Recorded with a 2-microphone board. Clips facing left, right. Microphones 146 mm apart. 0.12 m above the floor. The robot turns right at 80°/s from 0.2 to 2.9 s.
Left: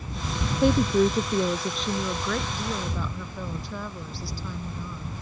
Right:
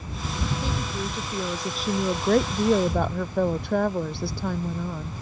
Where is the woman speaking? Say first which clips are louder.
Left 10 dB; 90° left; by 5.1 s 85° right.